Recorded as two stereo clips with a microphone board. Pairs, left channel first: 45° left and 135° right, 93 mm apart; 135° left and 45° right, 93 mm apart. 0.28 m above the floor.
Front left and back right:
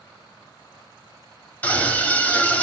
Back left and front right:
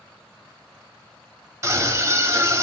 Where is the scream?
15° right, 1.2 m.